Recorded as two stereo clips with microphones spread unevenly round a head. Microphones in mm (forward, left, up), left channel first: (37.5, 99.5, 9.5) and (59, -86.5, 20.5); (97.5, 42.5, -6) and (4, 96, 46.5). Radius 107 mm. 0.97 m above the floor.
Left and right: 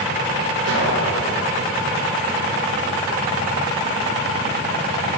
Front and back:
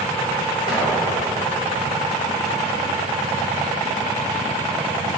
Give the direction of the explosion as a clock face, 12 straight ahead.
3 o'clock.